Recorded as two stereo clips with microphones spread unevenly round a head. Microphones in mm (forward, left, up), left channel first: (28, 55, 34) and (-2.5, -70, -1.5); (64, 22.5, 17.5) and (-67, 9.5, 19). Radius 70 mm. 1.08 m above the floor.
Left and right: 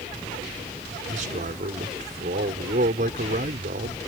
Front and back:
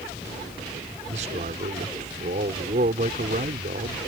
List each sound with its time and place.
1.1 s a man speaking: 135° right